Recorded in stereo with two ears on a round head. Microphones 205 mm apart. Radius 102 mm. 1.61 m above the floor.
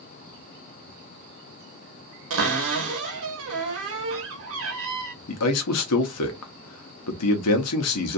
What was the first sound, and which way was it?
A cupboard door, 65° right (ahead or behind).